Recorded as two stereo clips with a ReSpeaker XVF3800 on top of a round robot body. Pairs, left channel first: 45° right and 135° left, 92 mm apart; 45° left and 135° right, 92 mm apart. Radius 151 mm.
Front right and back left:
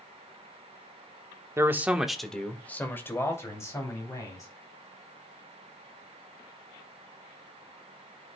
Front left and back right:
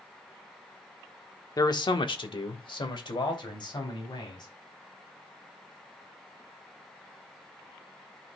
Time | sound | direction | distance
1.6 | a man speaking | 85° left | 1.2 m